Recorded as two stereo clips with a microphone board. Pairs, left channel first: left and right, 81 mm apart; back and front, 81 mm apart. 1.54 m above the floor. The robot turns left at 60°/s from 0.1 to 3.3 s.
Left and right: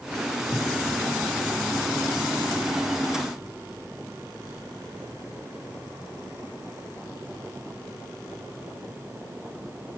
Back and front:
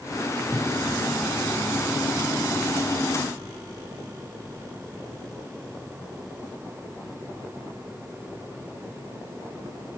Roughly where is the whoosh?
Behind left.